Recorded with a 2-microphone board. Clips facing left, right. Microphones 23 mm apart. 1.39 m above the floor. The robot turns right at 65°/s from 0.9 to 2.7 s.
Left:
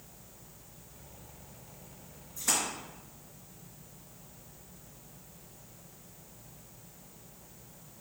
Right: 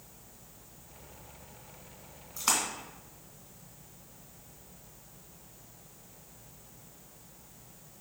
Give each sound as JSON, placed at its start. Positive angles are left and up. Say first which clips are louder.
{"t": 2.4, "sound": "a splash", "louder": "right 2 dB", "side_deg": -60, "distance_m": 2.5}